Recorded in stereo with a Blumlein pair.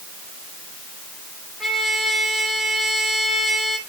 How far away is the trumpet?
About 2.5 m.